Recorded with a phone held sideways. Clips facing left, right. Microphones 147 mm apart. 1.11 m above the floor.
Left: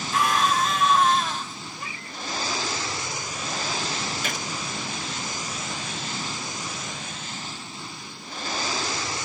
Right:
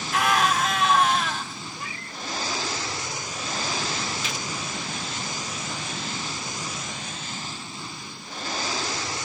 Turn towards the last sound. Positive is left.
turn(degrees=55)  # may be behind; listen again after turning